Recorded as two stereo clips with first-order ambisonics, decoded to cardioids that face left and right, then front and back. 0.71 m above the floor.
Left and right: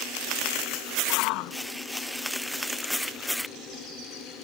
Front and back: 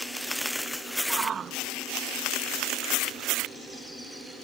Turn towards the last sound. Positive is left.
turn(degrees=115)